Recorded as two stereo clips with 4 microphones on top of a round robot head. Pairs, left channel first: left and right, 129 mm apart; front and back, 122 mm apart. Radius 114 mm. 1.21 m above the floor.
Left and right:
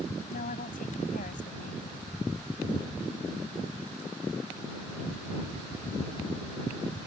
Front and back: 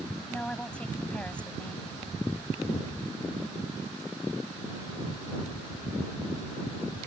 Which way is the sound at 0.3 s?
80° left.